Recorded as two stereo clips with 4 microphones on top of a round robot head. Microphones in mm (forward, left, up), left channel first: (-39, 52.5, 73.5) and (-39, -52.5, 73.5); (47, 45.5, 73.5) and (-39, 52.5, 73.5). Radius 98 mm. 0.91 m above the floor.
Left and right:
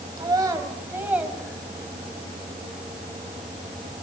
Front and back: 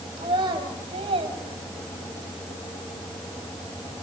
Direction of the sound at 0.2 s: 140° right.